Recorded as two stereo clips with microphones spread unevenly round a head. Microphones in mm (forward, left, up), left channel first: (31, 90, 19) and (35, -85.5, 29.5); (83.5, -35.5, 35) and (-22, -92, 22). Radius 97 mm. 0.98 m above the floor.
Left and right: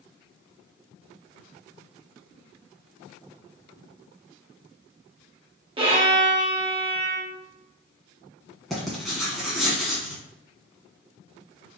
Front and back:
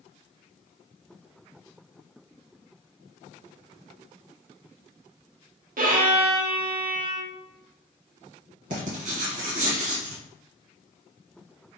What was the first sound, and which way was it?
A violin, 155° right.